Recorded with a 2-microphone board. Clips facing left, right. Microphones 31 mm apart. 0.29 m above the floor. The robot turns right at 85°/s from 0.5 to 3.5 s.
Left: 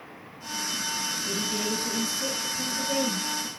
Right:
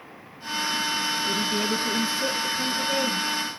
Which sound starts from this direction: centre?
A woman speaking, at 1.3 s.